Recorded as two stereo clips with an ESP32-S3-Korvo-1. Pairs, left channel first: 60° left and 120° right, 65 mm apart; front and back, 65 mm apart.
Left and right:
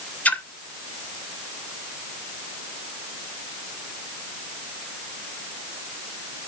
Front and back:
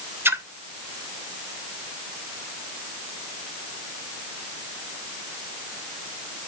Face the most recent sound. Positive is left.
turn(degrees=125)